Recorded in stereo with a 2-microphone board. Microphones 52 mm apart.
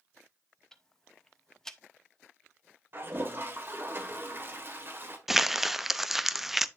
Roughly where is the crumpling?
Centre.